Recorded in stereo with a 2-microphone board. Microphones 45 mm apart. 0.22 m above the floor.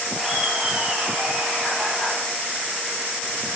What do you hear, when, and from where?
0.1 s laughter: 10° right (ahead or behind), 4 m; by 2.2 s 15° right (ahead or behind), 6 m